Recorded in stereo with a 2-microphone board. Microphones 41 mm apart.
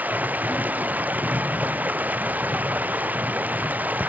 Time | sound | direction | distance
0.0 | running water | 45° right (ahead or behind) | ?